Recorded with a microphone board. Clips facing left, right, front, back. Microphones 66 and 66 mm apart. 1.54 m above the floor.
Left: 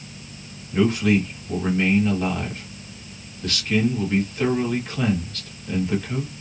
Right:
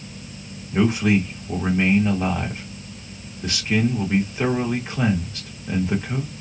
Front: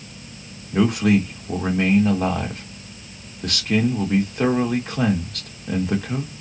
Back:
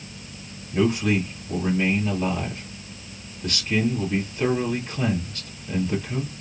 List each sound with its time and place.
0.7 s a man speaking: 20° right, 2.5 m